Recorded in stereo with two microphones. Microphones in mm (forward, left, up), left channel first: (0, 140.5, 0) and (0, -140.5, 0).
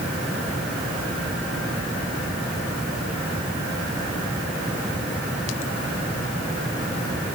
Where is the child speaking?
No child speaking in this recording.